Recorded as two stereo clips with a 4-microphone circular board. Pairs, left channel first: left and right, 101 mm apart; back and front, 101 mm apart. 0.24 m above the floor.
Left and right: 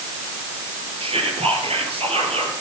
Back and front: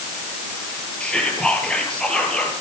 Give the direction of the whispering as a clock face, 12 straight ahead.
3 o'clock.